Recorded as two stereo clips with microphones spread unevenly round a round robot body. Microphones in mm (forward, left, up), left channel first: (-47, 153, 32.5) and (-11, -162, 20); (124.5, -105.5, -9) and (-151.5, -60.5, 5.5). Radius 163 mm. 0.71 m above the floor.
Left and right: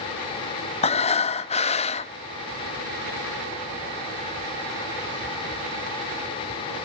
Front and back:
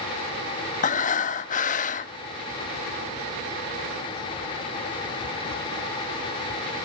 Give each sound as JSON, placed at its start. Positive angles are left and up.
{"t": 0.8, "sound": "breathing", "azimuth_deg": 35, "distance_m": 0.7}